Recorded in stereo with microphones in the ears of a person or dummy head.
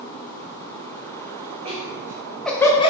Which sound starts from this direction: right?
Laughter, at 1.6 s.